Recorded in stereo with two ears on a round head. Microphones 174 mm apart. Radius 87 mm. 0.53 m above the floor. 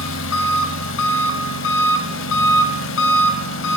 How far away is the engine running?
About 0.7 m.